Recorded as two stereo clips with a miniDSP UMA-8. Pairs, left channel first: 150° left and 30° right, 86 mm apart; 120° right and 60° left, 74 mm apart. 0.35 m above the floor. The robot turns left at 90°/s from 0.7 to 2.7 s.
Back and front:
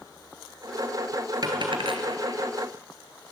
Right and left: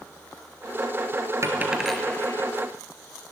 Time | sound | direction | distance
1.4 | a dropped coin | 10° left | 2 m